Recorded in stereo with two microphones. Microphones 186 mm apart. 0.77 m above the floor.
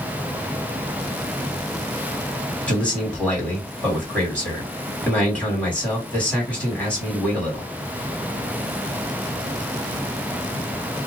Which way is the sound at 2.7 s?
10° left (ahead or behind).